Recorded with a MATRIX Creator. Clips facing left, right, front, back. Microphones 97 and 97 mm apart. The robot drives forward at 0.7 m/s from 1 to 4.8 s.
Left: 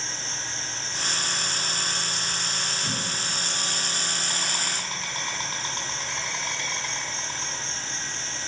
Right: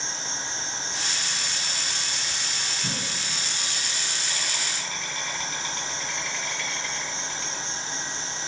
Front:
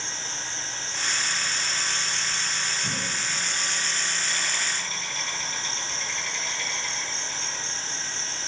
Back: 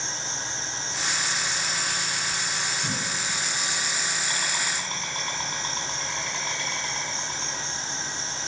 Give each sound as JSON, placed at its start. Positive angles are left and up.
{"t": 0.0, "sound": "an insect", "azimuth_deg": 65, "distance_m": 1.6}
{"t": 2.8, "sound": "a cough", "azimuth_deg": -125, "distance_m": 2.5}